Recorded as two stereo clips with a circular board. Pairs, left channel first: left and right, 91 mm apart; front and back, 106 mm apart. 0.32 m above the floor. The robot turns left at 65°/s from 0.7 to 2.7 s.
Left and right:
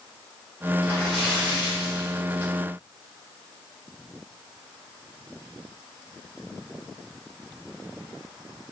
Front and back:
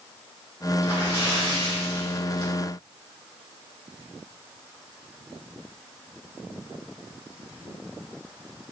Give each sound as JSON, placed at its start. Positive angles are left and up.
{"t": 0.8, "sound": "a splash", "azimuth_deg": 35, "distance_m": 1.7}